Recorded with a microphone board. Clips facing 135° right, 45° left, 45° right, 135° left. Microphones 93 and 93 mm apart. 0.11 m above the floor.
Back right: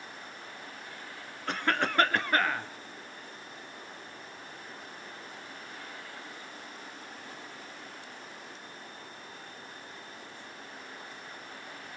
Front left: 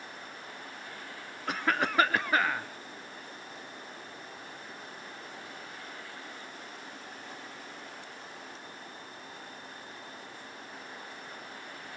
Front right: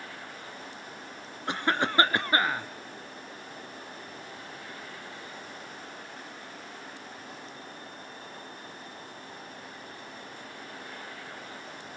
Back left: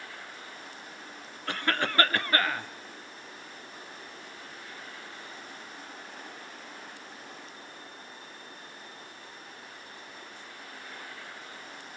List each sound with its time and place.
1.5 s a cough: 35° right, 1.1 m